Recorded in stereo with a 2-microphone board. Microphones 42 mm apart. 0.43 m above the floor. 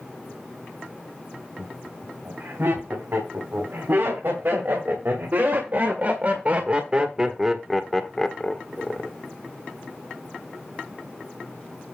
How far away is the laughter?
About 4 m.